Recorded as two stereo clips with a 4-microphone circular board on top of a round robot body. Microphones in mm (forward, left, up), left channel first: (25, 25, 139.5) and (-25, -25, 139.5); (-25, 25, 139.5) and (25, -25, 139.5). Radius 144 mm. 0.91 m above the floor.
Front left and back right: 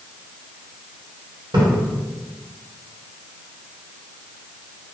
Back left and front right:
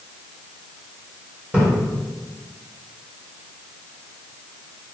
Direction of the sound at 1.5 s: 115° right.